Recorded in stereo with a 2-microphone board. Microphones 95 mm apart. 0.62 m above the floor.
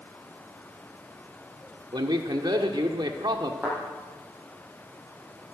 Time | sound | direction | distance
1.9 | a man speaking | 50° right (ahead or behind) | 1.1 m
3.6 | a thud | 15° right (ahead or behind) | 9 m